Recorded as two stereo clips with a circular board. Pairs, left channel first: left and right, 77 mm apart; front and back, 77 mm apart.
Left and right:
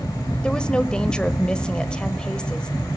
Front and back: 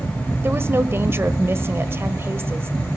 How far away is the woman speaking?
About 1.1 m.